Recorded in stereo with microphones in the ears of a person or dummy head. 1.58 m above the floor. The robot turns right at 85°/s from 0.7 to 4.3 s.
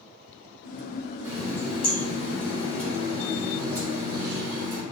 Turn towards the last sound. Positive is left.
turn(degrees=-110)